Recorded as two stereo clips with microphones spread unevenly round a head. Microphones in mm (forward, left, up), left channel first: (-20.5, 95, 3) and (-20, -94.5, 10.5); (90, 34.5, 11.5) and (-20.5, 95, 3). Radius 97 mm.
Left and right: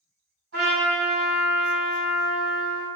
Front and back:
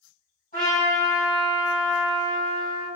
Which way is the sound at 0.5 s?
75° right.